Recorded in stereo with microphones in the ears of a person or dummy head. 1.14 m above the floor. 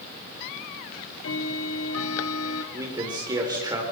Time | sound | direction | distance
0.9 | ticking | 80° left | 1.6 m
2.7 | a man speaking | 25° right (ahead or behind) | 3 m